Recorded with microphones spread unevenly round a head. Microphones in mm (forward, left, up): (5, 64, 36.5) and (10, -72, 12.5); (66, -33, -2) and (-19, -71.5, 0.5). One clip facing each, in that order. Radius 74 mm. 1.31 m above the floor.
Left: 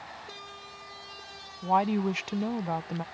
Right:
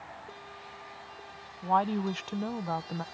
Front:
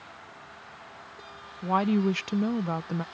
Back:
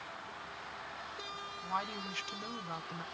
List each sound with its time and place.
1.6 s a woman speaking: 10° left